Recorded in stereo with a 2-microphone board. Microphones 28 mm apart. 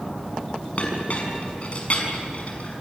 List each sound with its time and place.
0.8 s a clink: 45° left (ahead or behind), 6 m